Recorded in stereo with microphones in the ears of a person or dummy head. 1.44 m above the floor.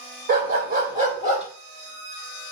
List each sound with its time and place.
0.3 s a dog barking: 50° right (ahead or behind), 3 m; by 1.5 s 35° right (ahead or behind), 2.5 m